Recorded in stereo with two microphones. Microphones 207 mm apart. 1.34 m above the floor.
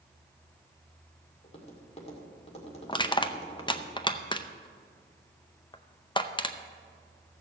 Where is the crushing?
25° left (ahead or behind), 0.6 m.